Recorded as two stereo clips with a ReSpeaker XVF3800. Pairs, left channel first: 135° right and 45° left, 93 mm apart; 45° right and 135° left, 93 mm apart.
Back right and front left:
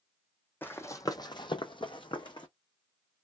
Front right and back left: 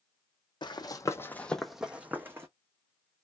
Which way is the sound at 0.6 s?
70° right.